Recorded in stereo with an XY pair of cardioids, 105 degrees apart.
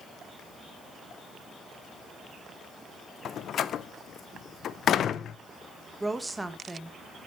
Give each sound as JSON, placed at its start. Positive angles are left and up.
{"t": 3.2, "sound": "a door slam", "azimuth_deg": 60, "distance_m": 0.6}
{"t": 6.0, "sound": "a woman speaking", "azimuth_deg": -15, "distance_m": 1.6}